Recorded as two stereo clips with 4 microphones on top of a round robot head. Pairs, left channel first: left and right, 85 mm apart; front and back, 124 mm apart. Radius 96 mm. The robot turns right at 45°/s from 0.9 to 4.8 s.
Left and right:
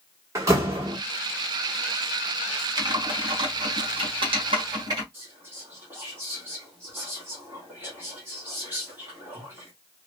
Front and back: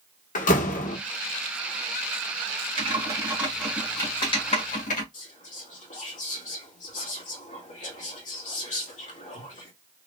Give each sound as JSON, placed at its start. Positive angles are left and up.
{"t": 0.3, "sound": "a door slam", "azimuth_deg": -30, "distance_m": 1.0}
{"t": 2.8, "sound": "typing on a keyboard", "azimuth_deg": -130, "distance_m": 1.9}
{"t": 5.1, "sound": "whispering", "azimuth_deg": -20, "distance_m": 2.0}